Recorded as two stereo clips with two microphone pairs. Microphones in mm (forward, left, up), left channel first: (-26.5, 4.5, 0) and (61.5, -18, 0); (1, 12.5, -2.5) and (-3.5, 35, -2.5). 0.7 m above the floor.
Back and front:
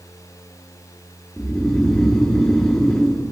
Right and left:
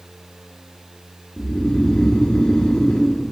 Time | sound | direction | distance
1.4 | snoring | 110° right | 1.2 m